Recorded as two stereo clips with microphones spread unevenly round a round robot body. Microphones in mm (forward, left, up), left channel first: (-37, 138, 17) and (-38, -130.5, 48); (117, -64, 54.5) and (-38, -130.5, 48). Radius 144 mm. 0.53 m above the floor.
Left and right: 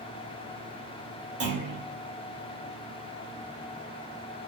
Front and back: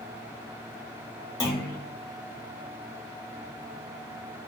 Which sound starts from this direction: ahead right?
A clunk, at 1.4 s.